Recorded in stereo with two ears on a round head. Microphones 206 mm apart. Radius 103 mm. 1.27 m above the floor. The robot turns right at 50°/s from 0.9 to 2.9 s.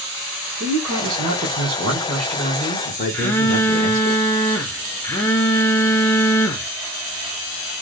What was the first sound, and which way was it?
A man speaking, 65° right.